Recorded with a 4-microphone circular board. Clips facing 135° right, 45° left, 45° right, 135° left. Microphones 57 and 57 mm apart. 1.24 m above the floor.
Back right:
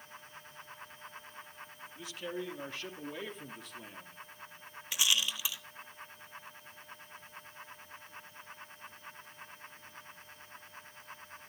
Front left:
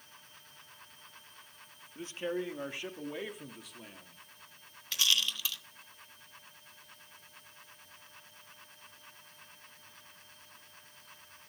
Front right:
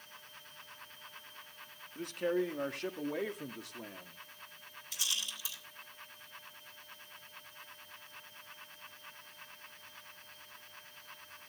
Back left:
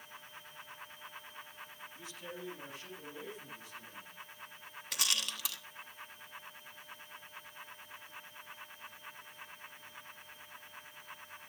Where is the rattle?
150° left, 1.2 m.